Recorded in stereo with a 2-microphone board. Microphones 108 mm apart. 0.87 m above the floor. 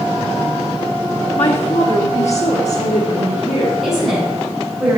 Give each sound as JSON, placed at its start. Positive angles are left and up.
{"t": 1.4, "sound": "a woman speaking", "side_deg": 55, "distance_m": 1.2}
{"t": 3.8, "sound": "a woman speaking", "side_deg": -5, "distance_m": 5.0}